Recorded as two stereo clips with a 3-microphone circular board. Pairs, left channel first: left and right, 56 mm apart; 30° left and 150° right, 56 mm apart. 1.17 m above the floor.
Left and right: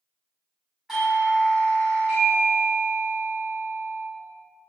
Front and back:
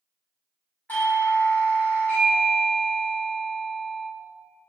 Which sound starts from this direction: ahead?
A doorbell, at 0.9 s.